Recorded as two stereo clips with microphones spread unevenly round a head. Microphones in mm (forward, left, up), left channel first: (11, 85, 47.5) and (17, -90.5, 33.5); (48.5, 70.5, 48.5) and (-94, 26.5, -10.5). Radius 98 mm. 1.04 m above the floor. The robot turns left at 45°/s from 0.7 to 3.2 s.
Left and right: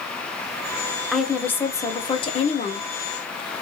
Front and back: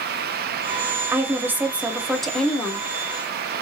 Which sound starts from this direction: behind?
A woman speaking, at 1.1 s.